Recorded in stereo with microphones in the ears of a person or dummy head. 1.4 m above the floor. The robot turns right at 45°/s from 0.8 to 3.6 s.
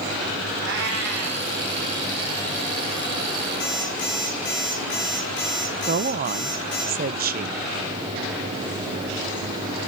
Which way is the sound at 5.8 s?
40° right (ahead or behind).